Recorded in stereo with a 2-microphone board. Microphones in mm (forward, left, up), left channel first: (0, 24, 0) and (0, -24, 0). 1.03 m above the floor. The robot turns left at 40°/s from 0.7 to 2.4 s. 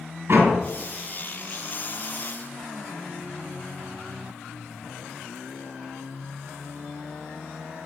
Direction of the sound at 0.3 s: 60° right (ahead or behind).